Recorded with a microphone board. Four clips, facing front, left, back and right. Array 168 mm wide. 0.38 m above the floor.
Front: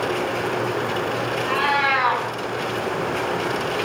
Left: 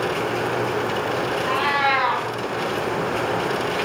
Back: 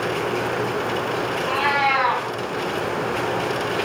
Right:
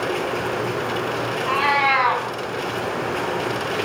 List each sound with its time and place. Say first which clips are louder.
1.5 s a cat meowing: right 3 dB, even; 75° right, 3.5 m